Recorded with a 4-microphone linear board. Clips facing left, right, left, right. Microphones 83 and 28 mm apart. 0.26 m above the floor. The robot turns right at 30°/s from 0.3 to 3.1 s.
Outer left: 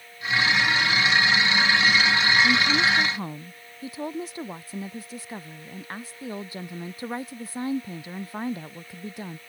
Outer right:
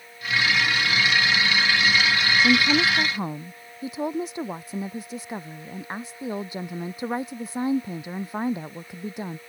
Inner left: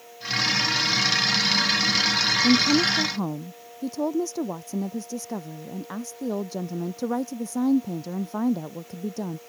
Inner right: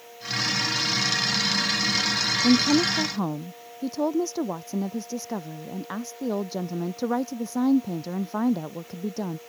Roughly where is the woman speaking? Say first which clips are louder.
Outer right 2 dB, inner right 1 dB; right.